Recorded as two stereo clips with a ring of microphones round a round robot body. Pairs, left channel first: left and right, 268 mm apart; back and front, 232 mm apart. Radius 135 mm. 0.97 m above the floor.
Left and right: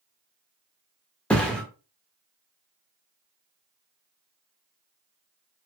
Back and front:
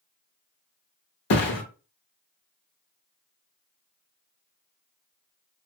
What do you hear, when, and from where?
1.3 s a thud: 175° left, 0.7 m